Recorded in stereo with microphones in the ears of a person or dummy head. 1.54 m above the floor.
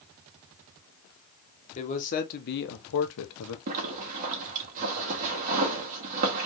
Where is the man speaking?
35° left (ahead or behind), 1.5 m; by 3.6 s 85° left, 1.1 m.